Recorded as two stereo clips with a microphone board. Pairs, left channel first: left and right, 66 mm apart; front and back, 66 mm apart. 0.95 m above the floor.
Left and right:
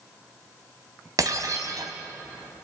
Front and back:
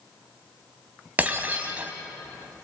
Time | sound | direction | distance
1.2 | breaking glass | 115° right | 2.5 m